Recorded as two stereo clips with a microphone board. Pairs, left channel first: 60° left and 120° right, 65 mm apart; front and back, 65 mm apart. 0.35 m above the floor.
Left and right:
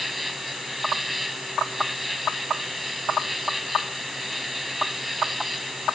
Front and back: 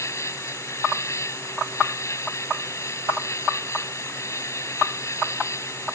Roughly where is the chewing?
No chewing in this recording.